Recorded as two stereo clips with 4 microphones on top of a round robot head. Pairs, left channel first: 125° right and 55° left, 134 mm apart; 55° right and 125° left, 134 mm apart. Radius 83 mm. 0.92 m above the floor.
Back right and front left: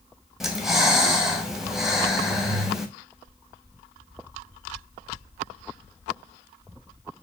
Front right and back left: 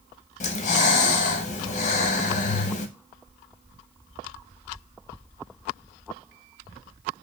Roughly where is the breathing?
Ahead right.